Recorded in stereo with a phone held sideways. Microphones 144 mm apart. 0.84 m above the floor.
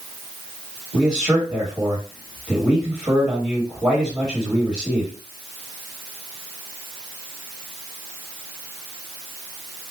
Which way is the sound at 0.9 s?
5° right (ahead or behind).